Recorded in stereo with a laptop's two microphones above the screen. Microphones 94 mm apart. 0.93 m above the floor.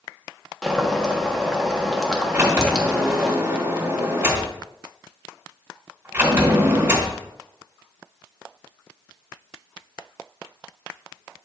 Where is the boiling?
5° left (ahead or behind), 1.3 m.